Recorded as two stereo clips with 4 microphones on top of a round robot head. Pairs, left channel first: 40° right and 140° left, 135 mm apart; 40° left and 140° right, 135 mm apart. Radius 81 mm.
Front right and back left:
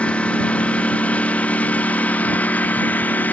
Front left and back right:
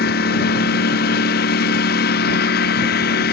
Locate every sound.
0.0 s a lawn mower: 40° left; by 3.3 s 35° left